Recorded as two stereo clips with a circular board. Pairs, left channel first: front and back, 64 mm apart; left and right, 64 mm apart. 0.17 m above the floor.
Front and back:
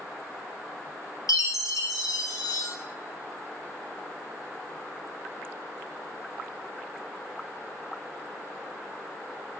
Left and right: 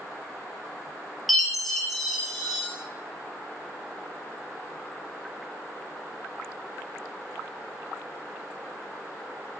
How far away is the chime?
About 1.4 m.